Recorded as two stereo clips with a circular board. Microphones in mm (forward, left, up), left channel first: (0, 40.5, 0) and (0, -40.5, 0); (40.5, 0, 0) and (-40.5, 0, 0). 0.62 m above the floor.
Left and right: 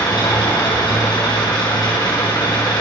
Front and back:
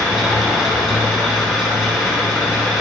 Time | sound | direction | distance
0.0 | an engine running | 95° left | 5 m